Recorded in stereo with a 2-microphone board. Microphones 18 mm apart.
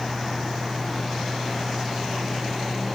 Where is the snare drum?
I don't hear a snare drum.